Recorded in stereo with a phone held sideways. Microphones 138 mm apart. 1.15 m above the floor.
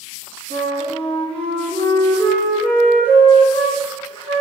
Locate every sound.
0.5 s a flute: 40° left (ahead or behind), 1.4 m